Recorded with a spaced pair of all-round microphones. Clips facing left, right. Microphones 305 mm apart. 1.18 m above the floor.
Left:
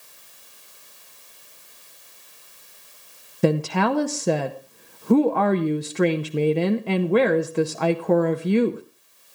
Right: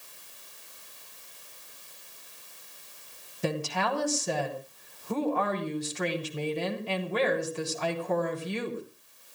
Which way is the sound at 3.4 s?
70° left (ahead or behind).